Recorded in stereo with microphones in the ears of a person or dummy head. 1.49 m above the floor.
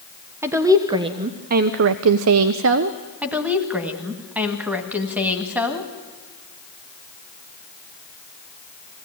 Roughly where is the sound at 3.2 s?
Centre.